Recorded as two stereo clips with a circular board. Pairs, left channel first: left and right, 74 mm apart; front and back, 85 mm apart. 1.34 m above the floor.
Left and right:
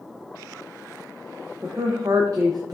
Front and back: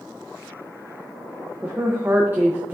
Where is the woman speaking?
115° right, 0.6 m.